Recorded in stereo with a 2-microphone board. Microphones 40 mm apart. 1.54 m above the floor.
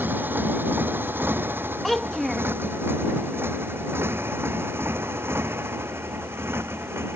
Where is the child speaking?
5° left (ahead or behind).